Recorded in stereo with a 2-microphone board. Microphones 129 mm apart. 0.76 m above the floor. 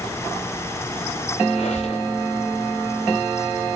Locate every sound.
1.5 s a squeak: 55° left (ahead or behind), 8.5 m